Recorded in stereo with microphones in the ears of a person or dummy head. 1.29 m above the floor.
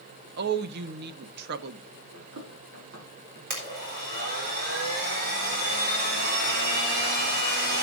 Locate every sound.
0.4 s a woman speaking: 55° right (ahead or behind), 1.0 m
2.1 s running footsteps: 60° right (ahead or behind), 4 m; by 3.4 s 50° right (ahead or behind), 5 m
3.5 s a blender: 55° right (ahead or behind), 3.5 m